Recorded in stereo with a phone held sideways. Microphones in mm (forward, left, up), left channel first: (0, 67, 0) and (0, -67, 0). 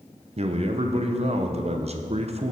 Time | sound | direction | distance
0.4 | a man speaking | 50° right (ahead or behind) | 0.5 m